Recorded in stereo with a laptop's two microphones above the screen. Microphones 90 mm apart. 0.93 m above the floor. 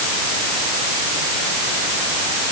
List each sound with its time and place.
Only background noise.